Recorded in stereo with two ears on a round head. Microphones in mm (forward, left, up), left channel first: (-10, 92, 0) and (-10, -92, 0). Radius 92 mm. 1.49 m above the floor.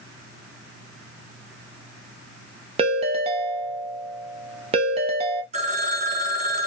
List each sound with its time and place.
2.8 s a ringtone: 30° right (ahead or behind), 0.7 m
5.5 s a phone ringing: 35° right (ahead or behind), 0.6 m